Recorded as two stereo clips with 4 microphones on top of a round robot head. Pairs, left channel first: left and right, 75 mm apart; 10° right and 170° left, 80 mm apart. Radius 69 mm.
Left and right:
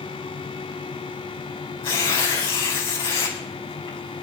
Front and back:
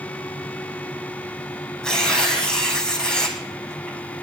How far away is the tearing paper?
About 5 m.